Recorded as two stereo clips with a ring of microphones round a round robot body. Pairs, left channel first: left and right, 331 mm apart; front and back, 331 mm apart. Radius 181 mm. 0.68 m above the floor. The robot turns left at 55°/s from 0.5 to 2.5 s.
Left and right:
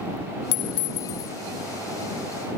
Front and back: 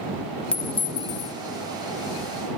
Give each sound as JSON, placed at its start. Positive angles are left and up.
{"t": 0.5, "sound": "a clink", "azimuth_deg": 85}